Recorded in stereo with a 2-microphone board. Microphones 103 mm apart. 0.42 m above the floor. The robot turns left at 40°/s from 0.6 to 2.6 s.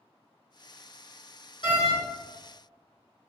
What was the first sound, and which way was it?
A door slam, 50° left (ahead or behind).